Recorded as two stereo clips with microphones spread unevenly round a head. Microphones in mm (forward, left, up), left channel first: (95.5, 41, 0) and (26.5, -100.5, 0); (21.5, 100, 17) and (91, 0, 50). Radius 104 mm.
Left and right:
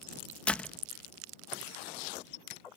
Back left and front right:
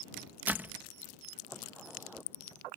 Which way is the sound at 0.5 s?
15° right.